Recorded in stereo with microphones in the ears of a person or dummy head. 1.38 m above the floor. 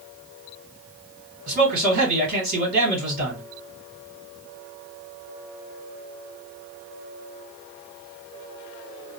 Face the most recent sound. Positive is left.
turn(degrees=-45)  # may be behind; listen again after turning